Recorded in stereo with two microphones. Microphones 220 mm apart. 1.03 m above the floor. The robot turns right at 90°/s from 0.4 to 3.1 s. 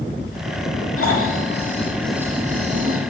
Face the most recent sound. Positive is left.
turn(degrees=-90)